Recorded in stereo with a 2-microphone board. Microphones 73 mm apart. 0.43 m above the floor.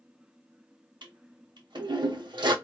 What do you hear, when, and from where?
1.0 s a toilet flushing: 80° right, 0.7 m